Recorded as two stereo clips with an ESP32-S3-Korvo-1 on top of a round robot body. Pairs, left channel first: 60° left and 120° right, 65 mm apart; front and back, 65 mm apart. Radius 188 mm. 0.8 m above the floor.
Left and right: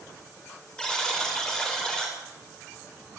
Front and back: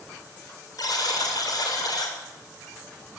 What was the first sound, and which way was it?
A buzzer, 20° right.